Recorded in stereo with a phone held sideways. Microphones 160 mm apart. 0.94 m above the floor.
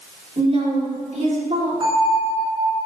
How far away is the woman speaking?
About 3 m.